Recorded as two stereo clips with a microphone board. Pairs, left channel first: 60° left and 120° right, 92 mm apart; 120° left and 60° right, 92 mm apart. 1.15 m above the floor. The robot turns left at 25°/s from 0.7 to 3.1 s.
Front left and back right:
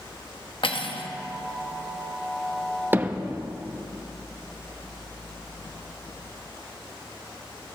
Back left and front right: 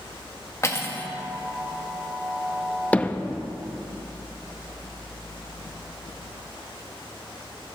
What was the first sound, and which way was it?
Cutlery clinking, 65° left.